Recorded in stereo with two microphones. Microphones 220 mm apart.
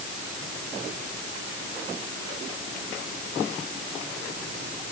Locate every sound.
Only background noise.